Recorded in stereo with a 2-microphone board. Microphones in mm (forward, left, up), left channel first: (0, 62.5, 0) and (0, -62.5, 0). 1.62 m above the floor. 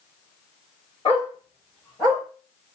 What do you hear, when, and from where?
1.1 s a dog barking: 40° left (ahead or behind), 1.9 m